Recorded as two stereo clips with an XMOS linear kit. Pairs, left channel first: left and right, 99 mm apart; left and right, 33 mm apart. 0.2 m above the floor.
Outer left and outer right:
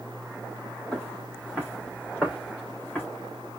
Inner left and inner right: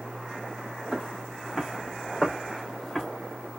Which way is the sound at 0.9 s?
10° left (ahead or behind).